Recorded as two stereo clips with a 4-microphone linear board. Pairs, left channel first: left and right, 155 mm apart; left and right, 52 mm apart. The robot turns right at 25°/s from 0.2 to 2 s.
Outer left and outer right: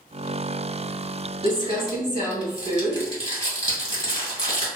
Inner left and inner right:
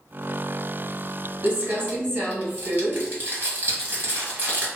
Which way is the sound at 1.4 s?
30° right (ahead or behind).